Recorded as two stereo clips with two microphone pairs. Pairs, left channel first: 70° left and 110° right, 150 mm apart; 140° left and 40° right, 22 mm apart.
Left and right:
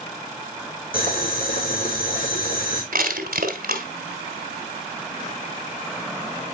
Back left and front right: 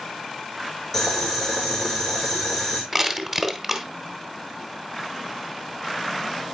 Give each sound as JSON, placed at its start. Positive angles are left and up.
{"t": 0.9, "sound": "boiling", "azimuth_deg": 60, "distance_m": 3.5}
{"t": 2.9, "sound": "crushing", "azimuth_deg": -115, "distance_m": 1.4}